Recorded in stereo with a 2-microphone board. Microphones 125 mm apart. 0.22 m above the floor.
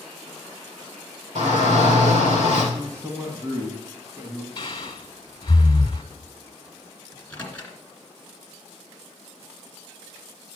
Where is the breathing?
40° left (ahead or behind), 1.3 m.